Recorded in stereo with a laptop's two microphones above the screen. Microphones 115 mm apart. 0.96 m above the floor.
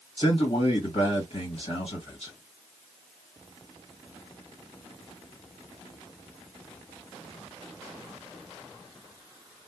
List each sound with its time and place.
0.2 s a man speaking: 60° left (ahead or behind), 1.6 m